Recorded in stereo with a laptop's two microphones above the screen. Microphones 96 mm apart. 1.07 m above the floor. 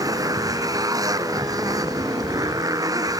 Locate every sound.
0.0 s a motorcycle: 40° right (ahead or behind)